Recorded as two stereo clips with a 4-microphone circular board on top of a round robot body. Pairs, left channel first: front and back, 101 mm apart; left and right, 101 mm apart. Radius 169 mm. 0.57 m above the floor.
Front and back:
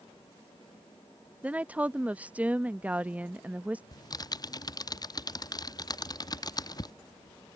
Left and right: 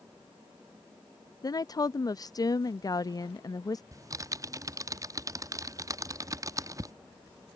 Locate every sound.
1.4 s a woman speaking: 110° left
3.9 s typing on a keyboard: 40° right